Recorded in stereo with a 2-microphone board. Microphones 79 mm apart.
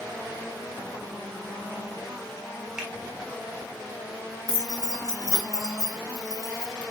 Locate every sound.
2.8 s a finger snap: 10° right (ahead or behind), 1.0 m
4.5 s keys jangling: 40° right (ahead or behind), 1.0 m